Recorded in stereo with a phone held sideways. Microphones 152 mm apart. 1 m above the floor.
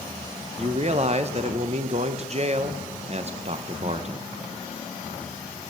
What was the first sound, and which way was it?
A man speaking, 45° right (ahead or behind).